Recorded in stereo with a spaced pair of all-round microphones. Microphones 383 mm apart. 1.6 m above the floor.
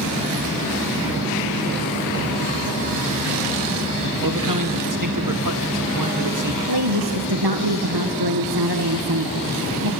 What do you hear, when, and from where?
4.2 s a man speaking: 55° right (ahead or behind), 1.6 m
6.7 s a woman speaking: 75° right (ahead or behind), 1.4 m